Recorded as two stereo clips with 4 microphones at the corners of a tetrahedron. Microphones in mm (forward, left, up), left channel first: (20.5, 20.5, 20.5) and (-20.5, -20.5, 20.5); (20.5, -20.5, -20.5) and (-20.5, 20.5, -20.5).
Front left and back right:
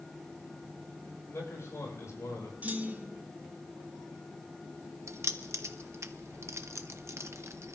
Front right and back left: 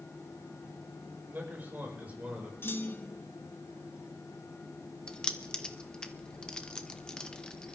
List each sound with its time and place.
1.3 s a man speaking: 80° left, 5 m; by 2.5 s 70° left, 4.5 m
2.6 s a clunk: 85° right, 1.1 m
5.1 s keys jangling: 120° right, 0.9 m